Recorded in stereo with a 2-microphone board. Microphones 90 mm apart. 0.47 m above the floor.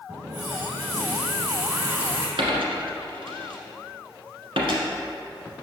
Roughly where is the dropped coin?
Right.